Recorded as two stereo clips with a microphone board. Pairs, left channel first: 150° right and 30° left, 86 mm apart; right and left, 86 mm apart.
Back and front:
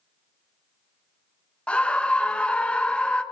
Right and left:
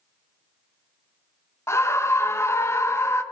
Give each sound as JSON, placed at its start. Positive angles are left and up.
{"t": 1.7, "sound": "a scream", "azimuth_deg": -85, "distance_m": 0.8}